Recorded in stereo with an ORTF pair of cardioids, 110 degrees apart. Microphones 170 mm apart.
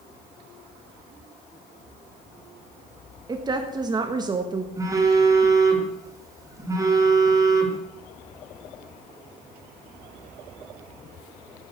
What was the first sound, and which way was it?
A woman speaking, 25° right.